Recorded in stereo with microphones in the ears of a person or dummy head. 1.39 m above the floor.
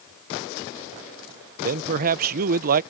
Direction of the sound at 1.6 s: 50° right (ahead or behind).